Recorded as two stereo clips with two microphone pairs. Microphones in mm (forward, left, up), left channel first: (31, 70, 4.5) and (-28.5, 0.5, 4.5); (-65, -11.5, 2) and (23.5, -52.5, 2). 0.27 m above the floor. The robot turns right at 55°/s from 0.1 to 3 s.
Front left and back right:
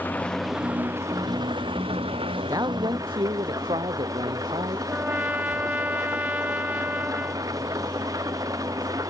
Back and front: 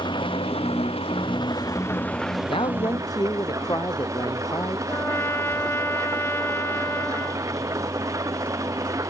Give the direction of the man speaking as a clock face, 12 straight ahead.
6 o'clock.